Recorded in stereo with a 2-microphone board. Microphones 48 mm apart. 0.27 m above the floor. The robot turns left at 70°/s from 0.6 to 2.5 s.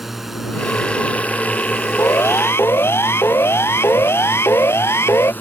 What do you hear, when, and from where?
0.0 s a drone: 175° right; by 5.4 s 50° left
2.0 s a siren: 75° left (ahead or behind); by 5.3 s 70° left (ahead or behind)